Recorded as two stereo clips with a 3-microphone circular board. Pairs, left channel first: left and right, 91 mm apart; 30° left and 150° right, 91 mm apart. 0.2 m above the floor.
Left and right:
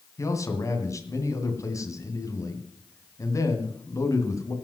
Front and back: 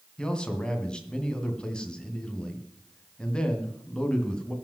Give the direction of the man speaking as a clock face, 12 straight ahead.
8 o'clock.